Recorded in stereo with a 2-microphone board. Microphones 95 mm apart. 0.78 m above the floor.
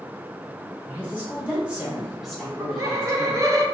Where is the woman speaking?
20° right (ahead or behind), 1.9 m; by 3.4 s 15° left (ahead or behind), 1.1 m.